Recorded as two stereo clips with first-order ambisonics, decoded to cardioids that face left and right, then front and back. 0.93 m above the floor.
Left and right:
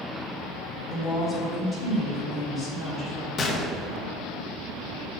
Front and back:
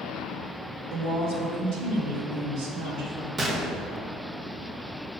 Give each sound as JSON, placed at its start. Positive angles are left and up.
{"t": 0.9, "sound": "a woman speaking", "azimuth_deg": 180, "distance_m": 2.5}
{"t": 3.4, "sound": "a gunshot", "azimuth_deg": 125, "distance_m": 0.8}